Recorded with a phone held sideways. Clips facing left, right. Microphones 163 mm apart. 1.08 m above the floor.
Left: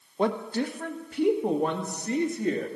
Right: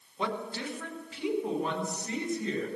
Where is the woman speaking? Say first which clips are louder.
Left 8 dB; 45° left (ahead or behind), 1.2 m; by 2.7 s 50° left (ahead or behind), 2.5 m.